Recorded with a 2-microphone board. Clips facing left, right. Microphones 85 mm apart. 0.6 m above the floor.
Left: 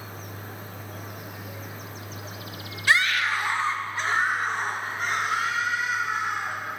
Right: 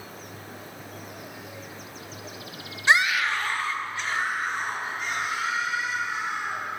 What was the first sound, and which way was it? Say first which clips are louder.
A scream: right 1 dB; 25° right (ahead or behind).